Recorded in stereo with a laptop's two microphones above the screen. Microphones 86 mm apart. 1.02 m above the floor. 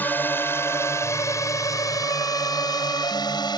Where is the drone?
20° left (ahead or behind); by 3.6 s 55° left (ahead or behind).